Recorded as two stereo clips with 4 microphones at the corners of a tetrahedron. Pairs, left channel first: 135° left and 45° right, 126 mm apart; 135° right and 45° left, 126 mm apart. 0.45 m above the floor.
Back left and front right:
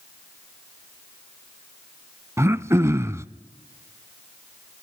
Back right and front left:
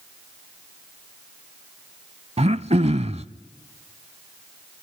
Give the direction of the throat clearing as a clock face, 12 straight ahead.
11 o'clock.